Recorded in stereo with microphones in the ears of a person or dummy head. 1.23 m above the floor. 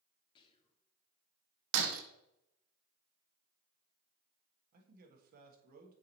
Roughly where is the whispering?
Left.